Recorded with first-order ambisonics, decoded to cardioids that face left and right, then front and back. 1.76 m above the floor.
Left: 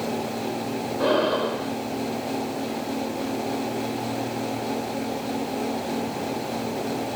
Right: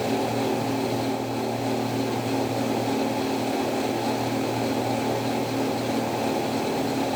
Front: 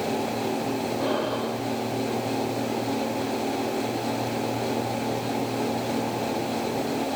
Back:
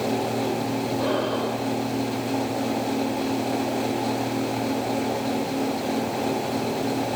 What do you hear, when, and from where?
1.0 s breathing: 95° left